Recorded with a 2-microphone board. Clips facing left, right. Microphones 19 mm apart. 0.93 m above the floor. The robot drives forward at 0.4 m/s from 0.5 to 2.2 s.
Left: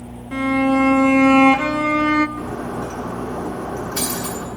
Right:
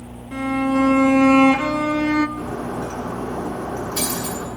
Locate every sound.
0.3 s a violin: 25° left (ahead or behind), 1.6 m; by 2.3 s 40° left (ahead or behind), 1.0 m
2.4 s breaking glass: 45° left (ahead or behind), 7.5 m